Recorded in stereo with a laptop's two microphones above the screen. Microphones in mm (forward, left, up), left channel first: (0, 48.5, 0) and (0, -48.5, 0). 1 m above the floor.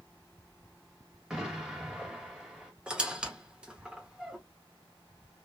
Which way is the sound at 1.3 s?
5° right (ahead or behind).